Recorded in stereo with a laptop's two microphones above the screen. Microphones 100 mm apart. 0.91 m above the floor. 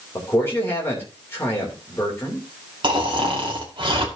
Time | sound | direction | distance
0.1 | a man speaking | 25° left (ahead or behind) | 3 m
2.8 | snoring | 55° right (ahead or behind) | 2.0 m